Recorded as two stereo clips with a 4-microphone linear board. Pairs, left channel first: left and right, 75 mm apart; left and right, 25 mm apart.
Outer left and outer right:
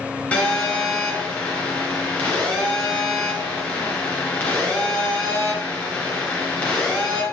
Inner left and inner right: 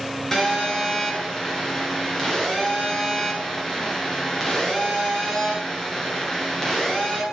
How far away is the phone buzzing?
About 2.5 m.